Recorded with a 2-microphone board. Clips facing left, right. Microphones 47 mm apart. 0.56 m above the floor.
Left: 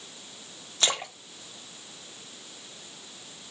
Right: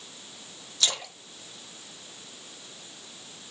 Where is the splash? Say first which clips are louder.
Left 2 dB; 35° left (ahead or behind), 0.7 m.